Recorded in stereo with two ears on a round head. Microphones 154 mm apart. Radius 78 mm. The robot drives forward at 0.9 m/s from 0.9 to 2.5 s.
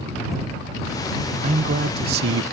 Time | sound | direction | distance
1.4 | a man speaking | 35° right (ahead or behind) | ?